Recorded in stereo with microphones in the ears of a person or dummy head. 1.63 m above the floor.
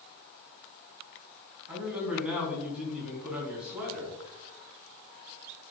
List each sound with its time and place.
1.7 s a man speaking: 5° right (ahead or behind), 4 m